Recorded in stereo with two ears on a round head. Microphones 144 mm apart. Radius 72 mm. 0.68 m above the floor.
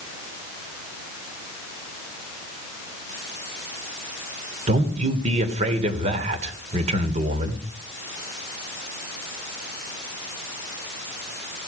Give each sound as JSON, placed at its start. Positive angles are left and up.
{"t": 4.7, "sound": "a man speaking", "side_deg": -45, "distance_m": 2.5}